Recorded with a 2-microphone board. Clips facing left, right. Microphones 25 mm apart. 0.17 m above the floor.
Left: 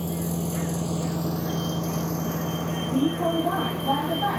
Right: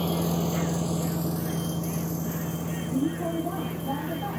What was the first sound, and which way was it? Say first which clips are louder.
A vehicle: right 2 dB; 45° right (ahead or behind).